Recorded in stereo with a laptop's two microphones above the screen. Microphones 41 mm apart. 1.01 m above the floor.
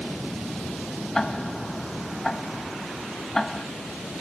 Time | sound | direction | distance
1.1 | ticking | 10° left (ahead or behind) | ?